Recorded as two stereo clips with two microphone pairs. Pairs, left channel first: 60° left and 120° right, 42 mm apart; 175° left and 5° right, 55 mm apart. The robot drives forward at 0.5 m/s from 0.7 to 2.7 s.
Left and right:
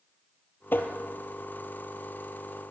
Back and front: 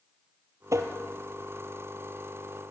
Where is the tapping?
25° left, 1.9 m; by 0.9 s 30° left, 1.8 m.